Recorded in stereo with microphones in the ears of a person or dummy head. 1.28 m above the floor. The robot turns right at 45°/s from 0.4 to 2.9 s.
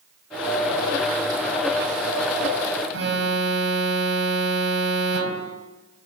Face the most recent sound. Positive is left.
turn(degrees=-85)